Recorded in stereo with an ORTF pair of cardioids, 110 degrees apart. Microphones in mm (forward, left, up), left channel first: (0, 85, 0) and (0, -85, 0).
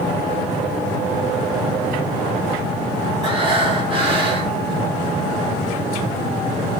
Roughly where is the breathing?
Ahead right.